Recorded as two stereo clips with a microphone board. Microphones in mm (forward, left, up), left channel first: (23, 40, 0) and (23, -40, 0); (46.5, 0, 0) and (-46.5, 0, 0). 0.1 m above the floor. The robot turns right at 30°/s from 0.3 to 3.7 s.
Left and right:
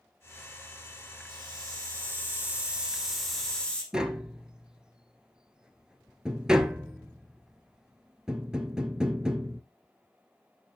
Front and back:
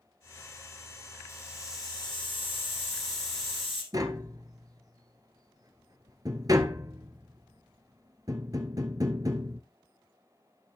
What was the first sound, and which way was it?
A hiss, 60° right.